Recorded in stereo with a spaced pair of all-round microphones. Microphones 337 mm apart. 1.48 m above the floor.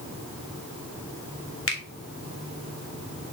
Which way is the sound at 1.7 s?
40° left (ahead or behind).